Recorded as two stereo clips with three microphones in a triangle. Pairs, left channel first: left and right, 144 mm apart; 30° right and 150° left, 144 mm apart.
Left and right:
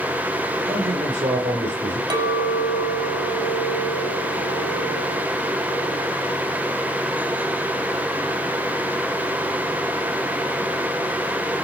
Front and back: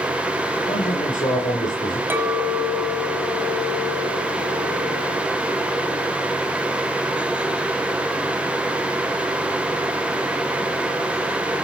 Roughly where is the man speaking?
Ahead right.